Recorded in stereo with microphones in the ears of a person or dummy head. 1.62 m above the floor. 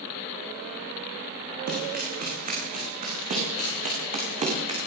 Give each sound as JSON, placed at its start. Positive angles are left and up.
{"t": 1.7, "sound": "running footsteps", "side_deg": -50, "distance_m": 8.0}